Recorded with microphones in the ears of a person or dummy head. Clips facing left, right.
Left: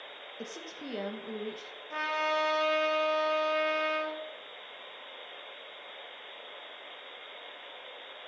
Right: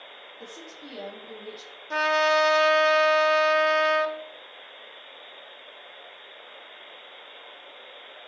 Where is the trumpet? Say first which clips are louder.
Right 9 dB; 65° right (ahead or behind), 0.9 m.